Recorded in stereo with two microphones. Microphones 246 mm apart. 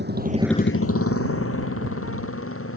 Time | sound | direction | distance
0.0 | a motorcycle | 50° right (ahead or behind) | ?